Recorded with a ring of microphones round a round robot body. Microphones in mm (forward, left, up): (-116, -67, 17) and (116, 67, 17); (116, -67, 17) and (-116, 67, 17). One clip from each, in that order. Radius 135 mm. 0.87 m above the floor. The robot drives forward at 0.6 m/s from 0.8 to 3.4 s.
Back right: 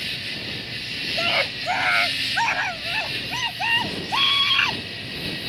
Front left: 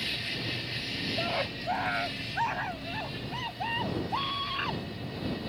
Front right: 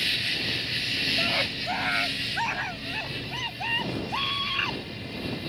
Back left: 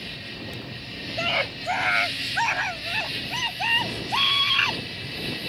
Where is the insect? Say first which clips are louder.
Back right 4 dB, front right 10 dB; 75° right; by 5.5 s 150° right.